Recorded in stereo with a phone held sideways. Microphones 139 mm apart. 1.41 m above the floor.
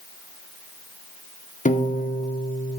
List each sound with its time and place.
1.6 s a piano: 65° left (ahead or behind), 0.9 m